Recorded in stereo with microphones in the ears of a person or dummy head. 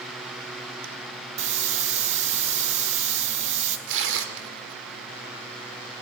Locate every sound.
1.4 s a hiss: 50° right (ahead or behind), 2 m
3.9 s tearing paper: 70° right (ahead or behind), 2.5 m